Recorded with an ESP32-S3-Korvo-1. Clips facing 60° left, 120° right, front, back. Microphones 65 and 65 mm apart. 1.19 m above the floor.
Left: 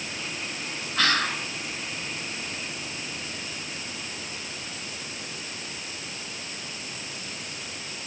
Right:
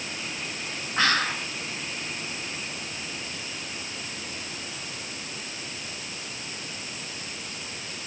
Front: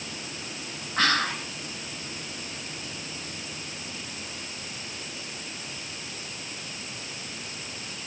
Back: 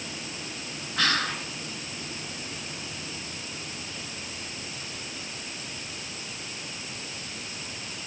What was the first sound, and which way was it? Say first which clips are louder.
Whispering: right 1 dB, front 2 dB; 55° right.